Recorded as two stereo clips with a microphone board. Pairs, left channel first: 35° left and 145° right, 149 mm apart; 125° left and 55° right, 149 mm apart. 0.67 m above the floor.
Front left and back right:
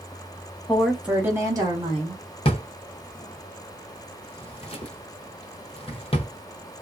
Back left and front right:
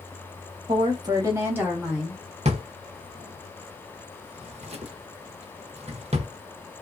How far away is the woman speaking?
About 0.9 m.